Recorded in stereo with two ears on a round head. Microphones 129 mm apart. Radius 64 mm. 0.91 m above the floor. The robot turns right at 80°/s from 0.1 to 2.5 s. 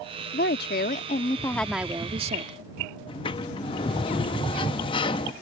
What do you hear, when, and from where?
0.3 s a woman speaking: 70° left; by 2.6 s 115° right
3.1 s a sliding door: 35° left (ahead or behind)